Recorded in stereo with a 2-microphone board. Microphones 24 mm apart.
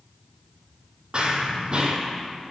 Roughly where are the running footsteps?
Right.